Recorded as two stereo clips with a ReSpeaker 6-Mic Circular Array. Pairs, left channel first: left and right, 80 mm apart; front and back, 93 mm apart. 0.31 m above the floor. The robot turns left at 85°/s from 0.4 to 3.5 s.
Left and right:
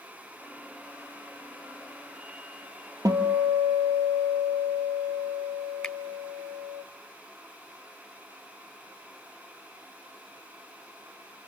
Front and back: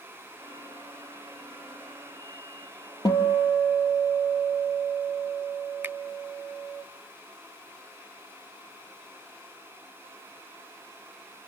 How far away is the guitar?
About 2 m.